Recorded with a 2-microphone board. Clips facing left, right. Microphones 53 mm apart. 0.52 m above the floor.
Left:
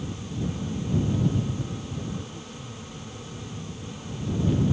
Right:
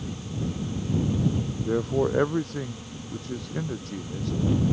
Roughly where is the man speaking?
Right.